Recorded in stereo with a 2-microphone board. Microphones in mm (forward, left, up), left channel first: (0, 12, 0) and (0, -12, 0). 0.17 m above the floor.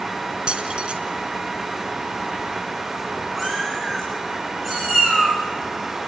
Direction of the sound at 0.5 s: 45° right (ahead or behind).